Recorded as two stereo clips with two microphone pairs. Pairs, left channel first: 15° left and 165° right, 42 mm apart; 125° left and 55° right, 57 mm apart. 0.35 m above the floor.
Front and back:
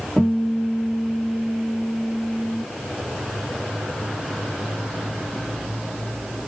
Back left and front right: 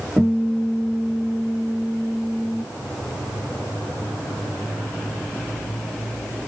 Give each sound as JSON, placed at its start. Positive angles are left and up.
{"t": 0.2, "sound": "a guitar", "azimuth_deg": -5, "distance_m": 2.0}